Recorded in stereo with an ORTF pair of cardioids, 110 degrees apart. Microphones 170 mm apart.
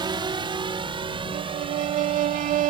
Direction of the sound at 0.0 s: 30° right.